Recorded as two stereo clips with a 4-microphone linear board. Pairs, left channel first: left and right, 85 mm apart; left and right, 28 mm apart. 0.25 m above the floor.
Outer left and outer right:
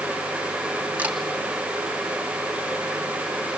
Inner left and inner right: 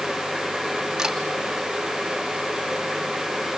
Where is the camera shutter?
15° right (ahead or behind), 2.5 m.